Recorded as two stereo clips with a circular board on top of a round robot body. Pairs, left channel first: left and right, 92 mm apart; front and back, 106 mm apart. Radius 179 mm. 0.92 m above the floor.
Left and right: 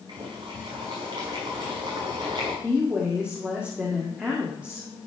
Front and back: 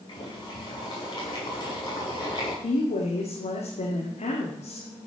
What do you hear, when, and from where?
0.1 s boiling: 50° right, 5 m
2.6 s a woman speaking: 15° right, 2 m